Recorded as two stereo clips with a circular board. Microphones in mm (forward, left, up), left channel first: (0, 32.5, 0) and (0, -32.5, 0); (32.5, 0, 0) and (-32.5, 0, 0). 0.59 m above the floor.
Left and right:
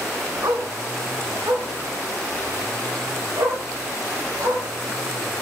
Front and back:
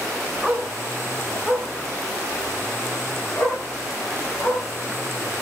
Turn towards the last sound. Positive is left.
turn(degrees=-50)